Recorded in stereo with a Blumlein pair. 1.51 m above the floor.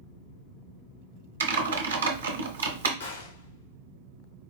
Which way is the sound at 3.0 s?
70° left.